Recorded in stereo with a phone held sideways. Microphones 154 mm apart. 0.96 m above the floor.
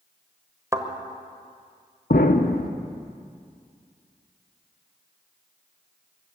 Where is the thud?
20° right (ahead or behind), 1.2 m.